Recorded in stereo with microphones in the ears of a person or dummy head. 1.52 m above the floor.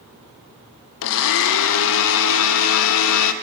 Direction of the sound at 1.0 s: 75° left (ahead or behind).